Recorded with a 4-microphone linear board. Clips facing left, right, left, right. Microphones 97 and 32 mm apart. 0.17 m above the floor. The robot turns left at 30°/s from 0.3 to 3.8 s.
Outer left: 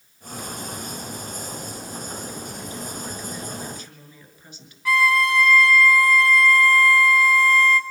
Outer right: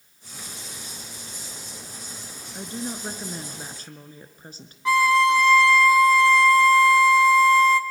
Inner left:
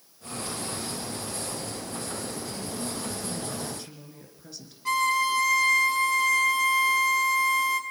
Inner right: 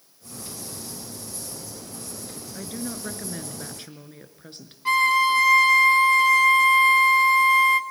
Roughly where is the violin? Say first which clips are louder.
Outer right 2 dB, inner right 5 dB; right.